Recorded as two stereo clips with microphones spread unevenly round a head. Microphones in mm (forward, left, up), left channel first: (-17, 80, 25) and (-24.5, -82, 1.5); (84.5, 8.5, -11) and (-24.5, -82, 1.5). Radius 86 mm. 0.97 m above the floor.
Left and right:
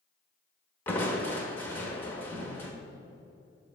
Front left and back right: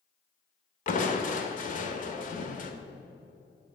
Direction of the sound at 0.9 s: 10° left.